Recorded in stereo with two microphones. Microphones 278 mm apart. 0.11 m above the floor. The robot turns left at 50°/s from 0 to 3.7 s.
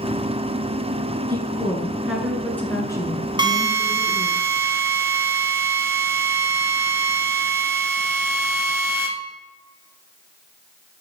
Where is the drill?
15° right (ahead or behind), 0.8 m; by 9.1 s 10° right (ahead or behind), 0.8 m.